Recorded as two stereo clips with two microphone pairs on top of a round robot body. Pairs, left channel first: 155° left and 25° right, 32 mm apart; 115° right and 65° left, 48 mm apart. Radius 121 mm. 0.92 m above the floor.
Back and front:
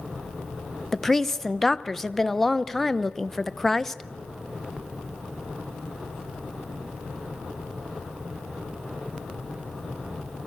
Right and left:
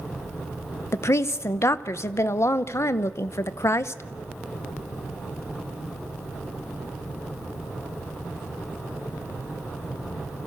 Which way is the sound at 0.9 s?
130° right.